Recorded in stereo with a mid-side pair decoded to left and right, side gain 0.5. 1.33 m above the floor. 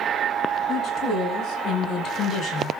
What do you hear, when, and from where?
0.7 s a woman speaking: 45° left, 8.5 m; by 2.7 s 50° left, 5.5 m